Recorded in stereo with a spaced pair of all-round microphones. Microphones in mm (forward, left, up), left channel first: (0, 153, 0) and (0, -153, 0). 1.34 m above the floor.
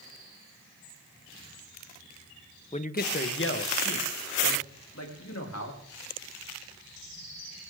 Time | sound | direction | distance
2.7 | a man speaking | 20° left (ahead or behind) | 0.7 m